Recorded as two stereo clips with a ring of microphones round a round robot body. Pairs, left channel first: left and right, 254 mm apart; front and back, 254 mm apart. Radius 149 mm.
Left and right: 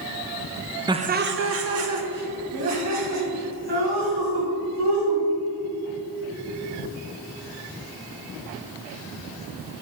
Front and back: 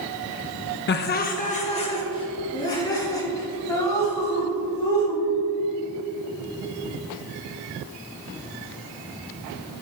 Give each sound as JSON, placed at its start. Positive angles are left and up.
{"t": 0.9, "sound": "laughter", "azimuth_deg": -20, "distance_m": 0.6}